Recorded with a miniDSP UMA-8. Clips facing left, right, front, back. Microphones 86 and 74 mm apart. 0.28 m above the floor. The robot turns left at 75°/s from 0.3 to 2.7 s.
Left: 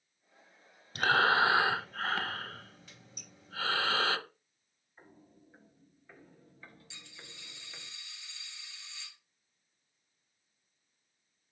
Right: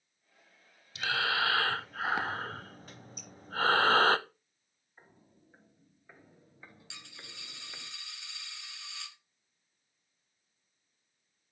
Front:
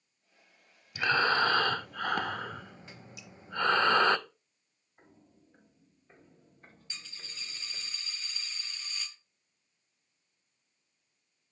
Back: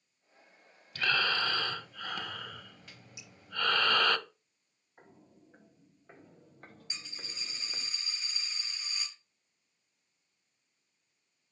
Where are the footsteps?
170° right, 3.5 m; by 7.9 s 160° right, 1.8 m.